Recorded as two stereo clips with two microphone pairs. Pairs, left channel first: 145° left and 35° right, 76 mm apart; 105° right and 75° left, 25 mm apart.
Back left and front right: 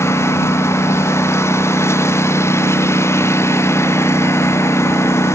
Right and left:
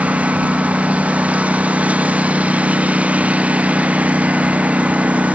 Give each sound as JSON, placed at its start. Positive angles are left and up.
{"t": 0.0, "sound": "a lawn mower", "azimuth_deg": 90}